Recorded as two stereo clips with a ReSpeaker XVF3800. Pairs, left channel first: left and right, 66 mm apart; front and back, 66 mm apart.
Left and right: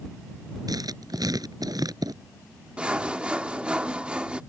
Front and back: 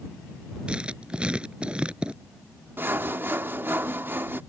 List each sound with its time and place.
0.7 s writing: 105° right
2.8 s sawing: 155° right